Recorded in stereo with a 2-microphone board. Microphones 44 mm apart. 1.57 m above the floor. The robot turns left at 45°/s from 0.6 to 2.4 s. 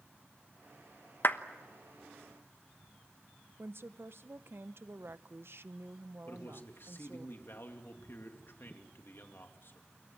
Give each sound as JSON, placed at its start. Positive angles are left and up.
{"t": 1.2, "sound": "a clap", "side_deg": 50, "distance_m": 1.1}
{"t": 3.6, "sound": "a woman speaking", "side_deg": -60, "distance_m": 0.9}
{"t": 6.3, "sound": "a man speaking", "side_deg": 55, "distance_m": 2.5}